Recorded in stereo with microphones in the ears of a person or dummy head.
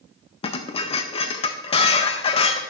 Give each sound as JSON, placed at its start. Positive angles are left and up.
{"t": 0.4, "sound": "dishes clattering", "side_deg": 35, "distance_m": 0.5}